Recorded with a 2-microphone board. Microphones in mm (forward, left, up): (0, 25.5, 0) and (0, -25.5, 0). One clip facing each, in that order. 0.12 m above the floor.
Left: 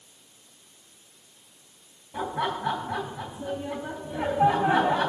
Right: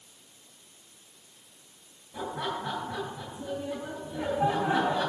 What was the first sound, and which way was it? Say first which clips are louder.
Laughter: left 4 dB; 65° left (ahead or behind).